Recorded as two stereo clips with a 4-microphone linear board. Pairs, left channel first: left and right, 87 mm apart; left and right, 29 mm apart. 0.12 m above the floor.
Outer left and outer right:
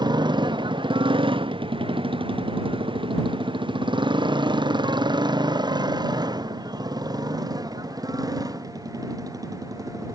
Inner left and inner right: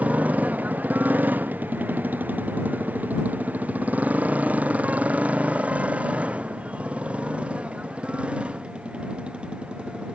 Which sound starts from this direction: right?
A motorcycle, at 0.0 s.